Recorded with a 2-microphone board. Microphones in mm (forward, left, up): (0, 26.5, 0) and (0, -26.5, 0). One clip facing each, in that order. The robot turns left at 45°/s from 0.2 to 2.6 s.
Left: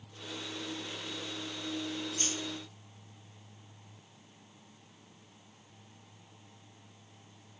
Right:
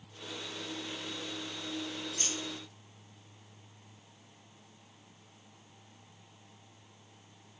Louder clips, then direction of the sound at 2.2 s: Left 2 dB; 30° right (ahead or behind).